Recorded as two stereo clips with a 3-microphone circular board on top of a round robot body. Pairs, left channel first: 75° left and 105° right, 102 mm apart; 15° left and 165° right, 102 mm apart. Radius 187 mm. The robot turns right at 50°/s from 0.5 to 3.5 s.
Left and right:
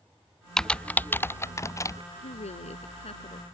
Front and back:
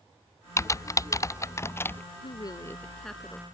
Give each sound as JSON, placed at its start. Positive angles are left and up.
{"t": 0.6, "sound": "typing on a keyboard", "azimuth_deg": -5}
{"t": 2.2, "sound": "a woman speaking", "azimuth_deg": 60}